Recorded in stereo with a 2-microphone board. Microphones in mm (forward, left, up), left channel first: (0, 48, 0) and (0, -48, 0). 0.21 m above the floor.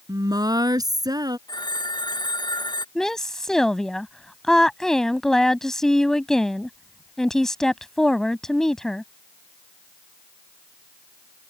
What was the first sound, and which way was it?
A woman speaking, 45° right (ahead or behind).